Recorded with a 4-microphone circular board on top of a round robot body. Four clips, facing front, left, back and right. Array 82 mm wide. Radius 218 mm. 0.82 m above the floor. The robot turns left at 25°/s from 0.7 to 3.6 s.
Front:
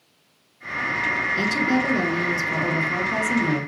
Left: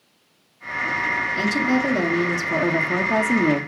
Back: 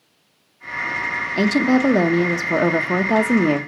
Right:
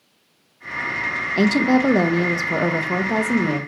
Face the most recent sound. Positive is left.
turn(degrees=170)